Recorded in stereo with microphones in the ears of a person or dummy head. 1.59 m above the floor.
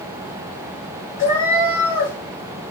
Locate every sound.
1.2 s a cat meowing: 25° left (ahead or behind), 1.4 m